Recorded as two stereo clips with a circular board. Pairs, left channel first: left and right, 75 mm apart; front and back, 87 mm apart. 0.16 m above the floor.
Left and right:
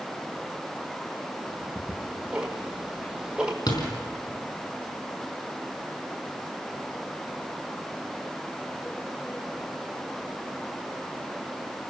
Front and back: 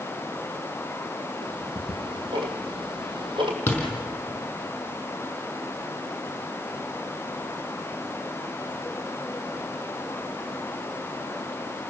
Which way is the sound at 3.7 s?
70° left.